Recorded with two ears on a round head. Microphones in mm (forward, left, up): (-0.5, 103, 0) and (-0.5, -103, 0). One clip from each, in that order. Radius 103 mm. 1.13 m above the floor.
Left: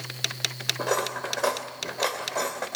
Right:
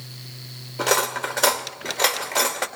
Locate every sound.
0.8 s cutlery clinking: 70° right (ahead or behind), 2.5 m